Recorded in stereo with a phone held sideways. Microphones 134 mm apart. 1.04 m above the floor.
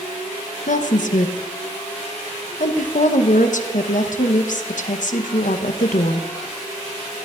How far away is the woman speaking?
About 0.9 m.